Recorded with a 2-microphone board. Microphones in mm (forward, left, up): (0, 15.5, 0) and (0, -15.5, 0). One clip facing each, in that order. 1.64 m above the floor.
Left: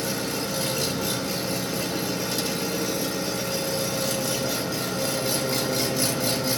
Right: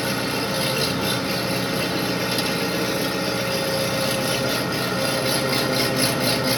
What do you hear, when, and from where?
0.0 s an engine running: 40° right (ahead or behind), 2.5 m